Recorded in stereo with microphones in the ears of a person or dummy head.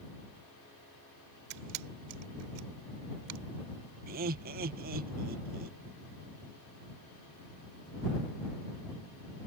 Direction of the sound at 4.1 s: 50° right (ahead or behind).